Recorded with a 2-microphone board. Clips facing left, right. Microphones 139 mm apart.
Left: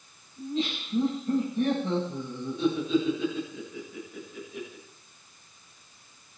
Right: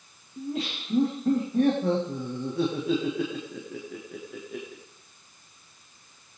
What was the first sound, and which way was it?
Laughter, 65° right (ahead or behind).